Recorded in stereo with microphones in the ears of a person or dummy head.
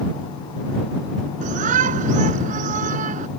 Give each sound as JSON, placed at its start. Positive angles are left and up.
{"t": 1.4, "sound": "a shout", "side_deg": -50}